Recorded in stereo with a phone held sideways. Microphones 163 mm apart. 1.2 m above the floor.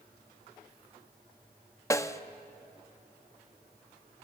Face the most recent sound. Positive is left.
turn(degrees=20)  # may be behind; listen again after turning